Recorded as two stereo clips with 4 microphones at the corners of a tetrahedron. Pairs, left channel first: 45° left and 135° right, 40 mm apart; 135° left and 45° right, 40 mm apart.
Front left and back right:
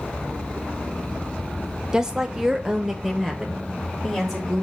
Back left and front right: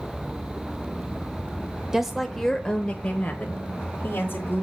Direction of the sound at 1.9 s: 105° right.